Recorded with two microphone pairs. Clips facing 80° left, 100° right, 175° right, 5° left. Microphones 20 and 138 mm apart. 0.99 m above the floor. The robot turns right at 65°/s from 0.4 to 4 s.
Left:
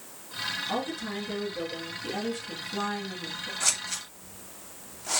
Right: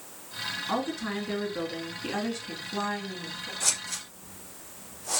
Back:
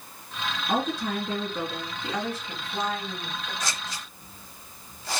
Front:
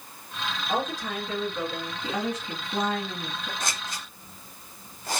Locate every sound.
0.7 s a woman speaking: 170° right, 1.9 m; by 3.5 s 15° left, 1.9 m
3.6 s scissors: straight ahead, 1.2 m; by 5.2 s 25° left, 1.2 m